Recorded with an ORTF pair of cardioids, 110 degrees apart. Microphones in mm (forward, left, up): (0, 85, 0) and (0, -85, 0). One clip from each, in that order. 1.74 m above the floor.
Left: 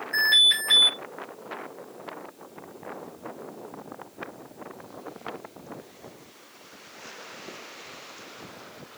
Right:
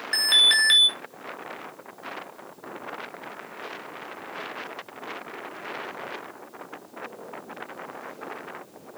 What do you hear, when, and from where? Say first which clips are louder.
0.1 s an alarm: right 1 dB; 60° right, 4 m